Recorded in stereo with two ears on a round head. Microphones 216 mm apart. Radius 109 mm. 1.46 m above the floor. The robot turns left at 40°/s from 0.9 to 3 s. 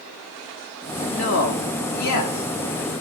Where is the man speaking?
55° left (ahead or behind), 2 m; by 2.9 s 50° left (ahead or behind), 2 m.